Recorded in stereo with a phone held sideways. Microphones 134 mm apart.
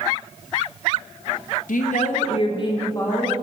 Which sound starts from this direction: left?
A woman speaking, at 1.7 s.